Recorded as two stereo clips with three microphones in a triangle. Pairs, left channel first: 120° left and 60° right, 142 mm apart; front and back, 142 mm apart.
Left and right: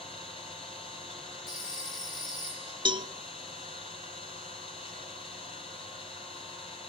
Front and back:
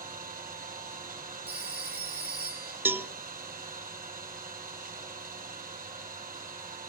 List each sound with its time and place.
0.0 s an engine running: 165° left, 6 m
1.5 s a phone ringing: 135° left, 6 m
2.9 s a cowbell: 105° right, 0.7 m